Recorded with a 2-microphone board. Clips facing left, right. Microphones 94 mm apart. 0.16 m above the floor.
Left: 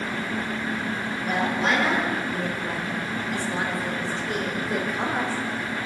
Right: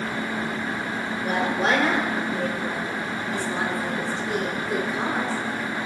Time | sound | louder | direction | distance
1.2 | a woman speaking | right 1 dB | 50° right (ahead or behind) | 4.5 m